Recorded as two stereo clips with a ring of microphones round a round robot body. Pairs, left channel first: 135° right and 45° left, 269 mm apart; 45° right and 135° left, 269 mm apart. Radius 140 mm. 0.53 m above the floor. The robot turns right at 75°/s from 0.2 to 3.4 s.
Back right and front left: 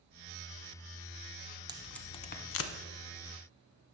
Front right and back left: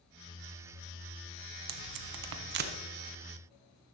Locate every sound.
1.7 s tape being pulled: 120° left, 0.8 m; by 2.7 s 160° right, 0.8 m